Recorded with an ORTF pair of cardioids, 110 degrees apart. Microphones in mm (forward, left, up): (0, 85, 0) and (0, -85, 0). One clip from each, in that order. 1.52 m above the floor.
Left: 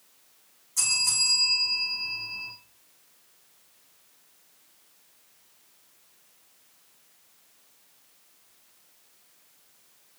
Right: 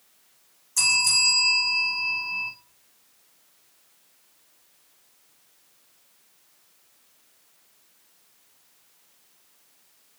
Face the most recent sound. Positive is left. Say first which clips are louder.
# right 5 dB
turn(degrees=-40)